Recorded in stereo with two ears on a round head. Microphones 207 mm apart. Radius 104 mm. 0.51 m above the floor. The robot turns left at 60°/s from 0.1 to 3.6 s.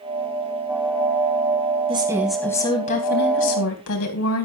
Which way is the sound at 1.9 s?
155° right.